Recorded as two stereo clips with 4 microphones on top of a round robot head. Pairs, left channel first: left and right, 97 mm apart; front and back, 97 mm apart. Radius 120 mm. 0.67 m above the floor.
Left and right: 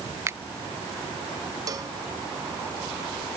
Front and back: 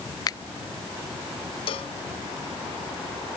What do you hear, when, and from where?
0.3 s a finger snap: 35° right
1.7 s a cowbell: 35° right